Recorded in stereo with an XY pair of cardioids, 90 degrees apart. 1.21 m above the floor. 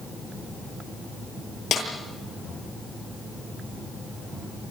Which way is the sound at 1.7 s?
70° left.